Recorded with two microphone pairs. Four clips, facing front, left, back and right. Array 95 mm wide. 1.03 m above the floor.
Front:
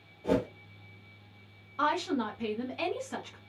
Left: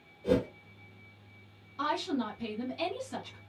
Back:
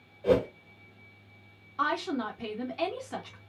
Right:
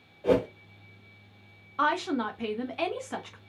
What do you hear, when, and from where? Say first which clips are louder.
0.2 s a whoosh: right 4 dB, back 4 dB; 110° right, 1.5 m
1.8 s a woman speaking: right 5 dB, front 1 dB; 95° right, 1.2 m